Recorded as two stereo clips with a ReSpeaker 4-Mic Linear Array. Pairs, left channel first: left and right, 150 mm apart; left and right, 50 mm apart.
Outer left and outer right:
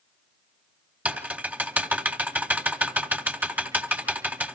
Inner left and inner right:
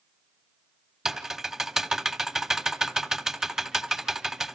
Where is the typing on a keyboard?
10° right (ahead or behind), 1.5 m.